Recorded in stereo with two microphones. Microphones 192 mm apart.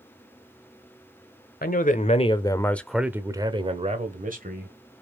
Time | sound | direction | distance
1.6 | a man speaking | 50° left (ahead or behind) | 1.3 m